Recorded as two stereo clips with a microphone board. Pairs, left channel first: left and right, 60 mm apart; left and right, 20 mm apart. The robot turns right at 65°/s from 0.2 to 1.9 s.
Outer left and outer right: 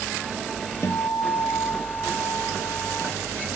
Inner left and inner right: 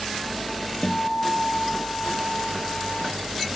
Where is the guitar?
60° left; by 3.1 s 130° left.